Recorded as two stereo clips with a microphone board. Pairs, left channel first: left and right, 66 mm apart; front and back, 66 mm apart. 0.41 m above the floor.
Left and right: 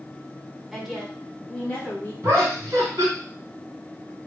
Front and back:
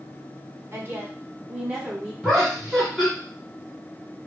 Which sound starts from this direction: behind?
A woman speaking, at 0.7 s.